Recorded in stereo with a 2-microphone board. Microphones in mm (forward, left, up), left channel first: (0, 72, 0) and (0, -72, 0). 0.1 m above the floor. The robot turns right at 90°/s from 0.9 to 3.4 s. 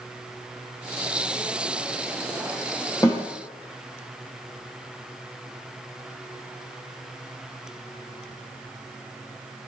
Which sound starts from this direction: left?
A snare drum, at 3.0 s.